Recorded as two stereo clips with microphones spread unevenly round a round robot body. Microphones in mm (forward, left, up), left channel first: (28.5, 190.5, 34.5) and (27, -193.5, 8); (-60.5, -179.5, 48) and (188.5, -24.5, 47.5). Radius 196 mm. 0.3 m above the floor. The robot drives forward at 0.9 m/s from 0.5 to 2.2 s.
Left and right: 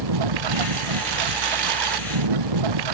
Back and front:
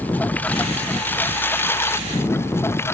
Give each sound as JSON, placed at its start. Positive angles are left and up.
{"t": 0.0, "sound": "a lawn mower", "azimuth_deg": -65}